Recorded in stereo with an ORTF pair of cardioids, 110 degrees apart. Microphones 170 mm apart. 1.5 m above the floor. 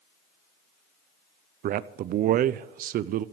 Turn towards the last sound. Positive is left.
turn(degrees=-60)